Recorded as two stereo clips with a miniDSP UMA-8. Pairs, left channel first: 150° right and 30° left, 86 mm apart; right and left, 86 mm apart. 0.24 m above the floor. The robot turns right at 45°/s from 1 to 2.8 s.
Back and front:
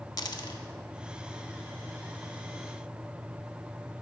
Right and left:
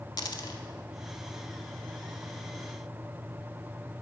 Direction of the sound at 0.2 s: 115° right.